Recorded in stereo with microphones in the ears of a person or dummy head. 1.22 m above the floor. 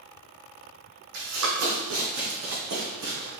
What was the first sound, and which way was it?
Running footsteps, 60° right (ahead or behind).